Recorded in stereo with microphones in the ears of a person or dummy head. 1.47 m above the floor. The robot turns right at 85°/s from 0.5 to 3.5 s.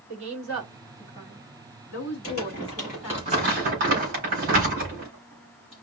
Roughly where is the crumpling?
Left.